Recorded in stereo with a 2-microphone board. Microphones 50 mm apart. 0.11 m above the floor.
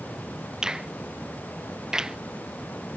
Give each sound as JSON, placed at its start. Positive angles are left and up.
{"t": 0.6, "sound": "a finger snap", "side_deg": -15}